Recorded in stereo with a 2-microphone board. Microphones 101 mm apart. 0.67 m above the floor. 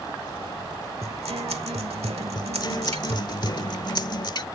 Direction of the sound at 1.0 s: 80° right.